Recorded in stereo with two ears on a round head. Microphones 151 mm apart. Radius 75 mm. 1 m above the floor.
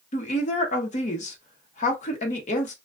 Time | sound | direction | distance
0.1 | a woman speaking | 45° left (ahead or behind) | 1.0 m